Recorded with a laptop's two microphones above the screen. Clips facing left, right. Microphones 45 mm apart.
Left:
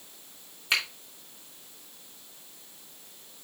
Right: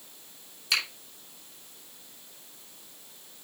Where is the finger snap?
35° left (ahead or behind), 3 m.